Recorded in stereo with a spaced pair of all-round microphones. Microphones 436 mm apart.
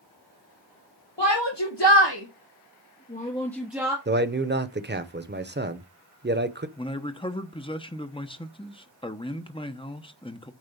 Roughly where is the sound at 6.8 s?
Centre.